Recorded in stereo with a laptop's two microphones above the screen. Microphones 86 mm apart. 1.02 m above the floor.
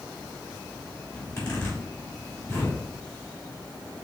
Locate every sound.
1.1 s a zipper: 35° left (ahead or behind), 1.5 m